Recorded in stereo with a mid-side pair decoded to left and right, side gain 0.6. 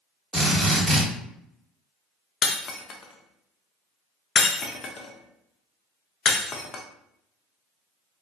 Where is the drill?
5° right, 1.2 m.